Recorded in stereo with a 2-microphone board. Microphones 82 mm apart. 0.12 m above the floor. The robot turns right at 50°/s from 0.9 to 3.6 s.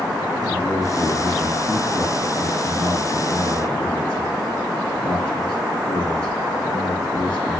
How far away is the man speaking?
About 1.8 m.